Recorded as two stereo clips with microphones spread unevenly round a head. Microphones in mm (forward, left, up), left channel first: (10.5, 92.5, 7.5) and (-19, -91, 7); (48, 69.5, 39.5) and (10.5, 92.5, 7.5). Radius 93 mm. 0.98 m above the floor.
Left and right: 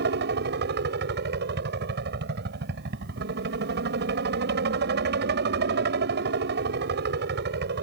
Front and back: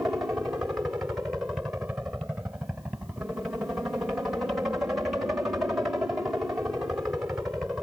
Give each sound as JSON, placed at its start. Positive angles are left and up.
{"t": 0.0, "sound": "a helicopter", "azimuth_deg": -135}